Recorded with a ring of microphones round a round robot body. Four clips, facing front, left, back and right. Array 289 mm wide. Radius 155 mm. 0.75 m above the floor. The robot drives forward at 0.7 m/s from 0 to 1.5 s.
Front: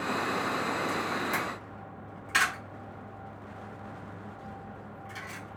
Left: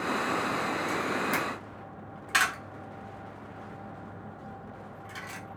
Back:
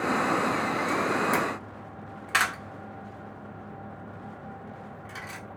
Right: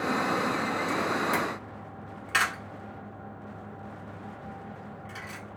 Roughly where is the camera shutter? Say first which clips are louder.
Right 2 dB, back 6 dB; behind left.